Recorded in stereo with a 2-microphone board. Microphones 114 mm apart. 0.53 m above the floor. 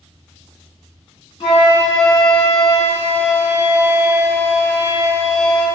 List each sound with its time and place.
1.4 s a flute: 50° left (ahead or behind), 1.0 m